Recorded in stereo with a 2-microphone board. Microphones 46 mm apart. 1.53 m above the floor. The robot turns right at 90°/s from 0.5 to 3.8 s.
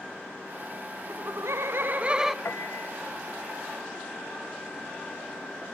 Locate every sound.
1.1 s laughter: 115° right, 0.6 m; by 2.4 s 5° right, 0.6 m
2.5 s a piano: 85° left, 1.2 m; by 2.9 s 125° left, 1.2 m